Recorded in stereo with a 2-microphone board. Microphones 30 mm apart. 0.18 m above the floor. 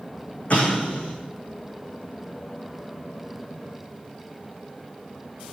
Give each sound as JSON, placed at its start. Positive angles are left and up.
{"t": 0.5, "sound": "an explosion", "side_deg": 45, "distance_m": 5.0}